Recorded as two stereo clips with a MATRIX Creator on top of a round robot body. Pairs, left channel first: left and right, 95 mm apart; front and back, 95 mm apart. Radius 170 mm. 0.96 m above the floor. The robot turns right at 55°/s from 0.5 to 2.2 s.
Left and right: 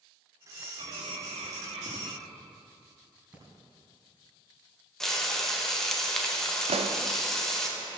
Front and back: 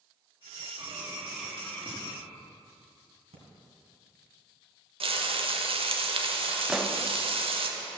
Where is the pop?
95° right, 0.8 m.